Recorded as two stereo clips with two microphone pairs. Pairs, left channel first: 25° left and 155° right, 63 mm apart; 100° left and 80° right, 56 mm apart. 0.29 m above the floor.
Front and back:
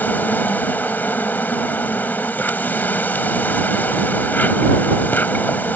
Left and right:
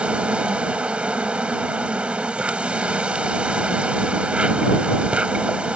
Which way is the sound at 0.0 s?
20° right.